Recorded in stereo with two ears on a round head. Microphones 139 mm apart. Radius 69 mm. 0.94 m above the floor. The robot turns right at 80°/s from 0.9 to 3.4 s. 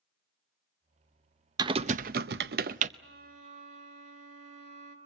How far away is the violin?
About 3 m.